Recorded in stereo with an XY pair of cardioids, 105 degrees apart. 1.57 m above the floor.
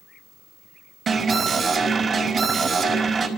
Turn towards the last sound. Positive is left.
turn(degrees=-50)